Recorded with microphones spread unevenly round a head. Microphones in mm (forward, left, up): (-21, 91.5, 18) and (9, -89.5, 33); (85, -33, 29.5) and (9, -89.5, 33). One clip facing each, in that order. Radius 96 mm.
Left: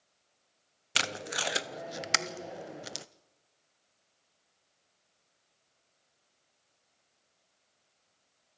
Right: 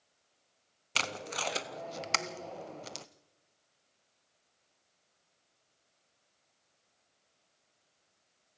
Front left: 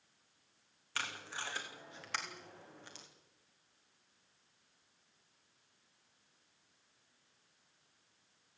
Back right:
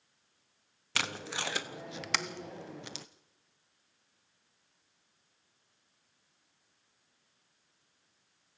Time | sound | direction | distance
0.9 | tape being pulled | straight behind | 0.7 m